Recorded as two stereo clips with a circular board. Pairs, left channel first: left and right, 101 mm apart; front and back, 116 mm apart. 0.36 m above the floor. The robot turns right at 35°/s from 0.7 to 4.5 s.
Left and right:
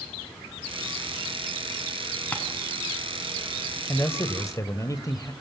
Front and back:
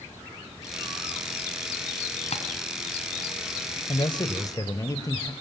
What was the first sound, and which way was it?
Tapping, 15° left.